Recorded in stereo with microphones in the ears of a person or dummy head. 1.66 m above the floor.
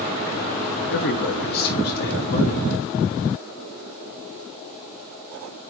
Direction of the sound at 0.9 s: 60° left (ahead or behind).